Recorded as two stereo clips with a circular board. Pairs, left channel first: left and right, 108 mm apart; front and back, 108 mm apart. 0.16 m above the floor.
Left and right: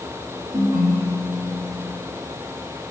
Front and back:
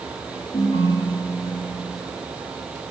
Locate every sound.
0.5 s a ringtone: 40° right, 4 m